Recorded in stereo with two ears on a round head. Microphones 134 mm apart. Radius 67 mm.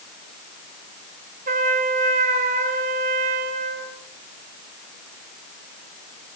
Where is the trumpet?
55° right (ahead or behind), 3 m.